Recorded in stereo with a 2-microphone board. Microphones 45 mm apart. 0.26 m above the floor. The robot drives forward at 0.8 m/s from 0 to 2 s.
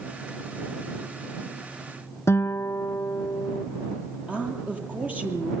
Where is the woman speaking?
30° right (ahead or behind), 8 m.